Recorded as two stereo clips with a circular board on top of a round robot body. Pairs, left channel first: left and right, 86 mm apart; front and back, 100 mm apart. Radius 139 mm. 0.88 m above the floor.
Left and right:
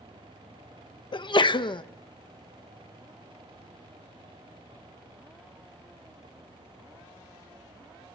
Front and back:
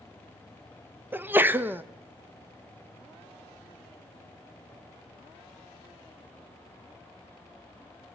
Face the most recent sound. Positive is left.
turn(degrees=110)